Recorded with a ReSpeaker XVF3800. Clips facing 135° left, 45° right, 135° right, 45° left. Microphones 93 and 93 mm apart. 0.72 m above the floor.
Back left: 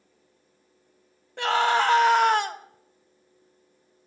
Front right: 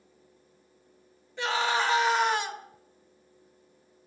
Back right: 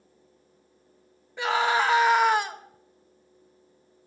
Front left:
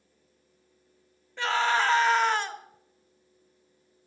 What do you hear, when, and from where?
1.4 s a scream: 150° left, 1.8 m